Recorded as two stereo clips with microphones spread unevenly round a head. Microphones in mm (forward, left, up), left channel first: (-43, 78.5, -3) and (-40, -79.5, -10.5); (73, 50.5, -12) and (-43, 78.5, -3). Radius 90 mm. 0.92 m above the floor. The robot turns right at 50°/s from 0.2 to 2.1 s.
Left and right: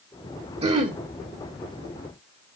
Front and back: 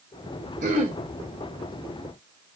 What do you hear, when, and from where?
0.6 s throat clearing: 140° right, 2.5 m; by 1.0 s 120° right, 2.5 m